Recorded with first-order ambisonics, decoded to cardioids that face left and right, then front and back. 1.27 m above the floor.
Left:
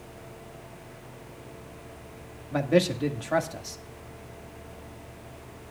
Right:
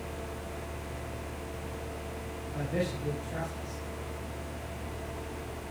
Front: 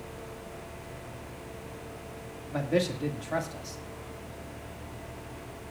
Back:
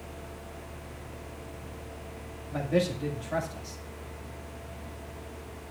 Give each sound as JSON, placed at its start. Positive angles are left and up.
{"t": 2.5, "sound": "a man speaking", "azimuth_deg": 80, "distance_m": 1.9}